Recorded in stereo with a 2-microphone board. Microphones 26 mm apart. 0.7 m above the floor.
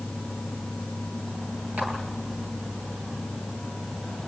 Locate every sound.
1.8 s a clap: 70° right (ahead or behind), 8.5 m